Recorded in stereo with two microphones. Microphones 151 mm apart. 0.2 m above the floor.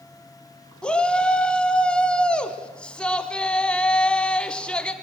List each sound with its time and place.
0.8 s a shout: 5° left (ahead or behind), 1.2 m